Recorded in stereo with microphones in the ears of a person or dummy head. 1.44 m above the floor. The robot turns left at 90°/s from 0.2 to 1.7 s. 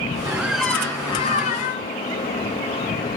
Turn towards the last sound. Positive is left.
turn(degrees=80)